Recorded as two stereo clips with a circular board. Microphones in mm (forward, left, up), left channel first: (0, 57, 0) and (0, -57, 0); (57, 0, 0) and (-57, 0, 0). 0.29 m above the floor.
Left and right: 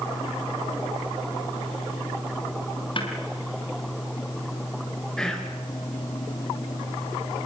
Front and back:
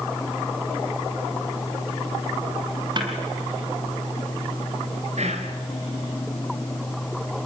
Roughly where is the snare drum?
Behind left.